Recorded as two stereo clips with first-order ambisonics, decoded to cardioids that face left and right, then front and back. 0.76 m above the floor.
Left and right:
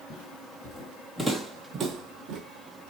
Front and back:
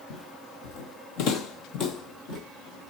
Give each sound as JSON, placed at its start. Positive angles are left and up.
{"t": 0.1, "sound": "footsteps", "azimuth_deg": 40, "distance_m": 1.5}